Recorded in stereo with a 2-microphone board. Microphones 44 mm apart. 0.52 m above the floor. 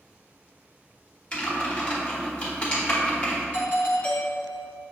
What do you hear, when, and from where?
1.3 s typing on a keyboard: 25° left (ahead or behind), 1.3 m
3.5 s a doorbell: 35° left (ahead or behind), 1.7 m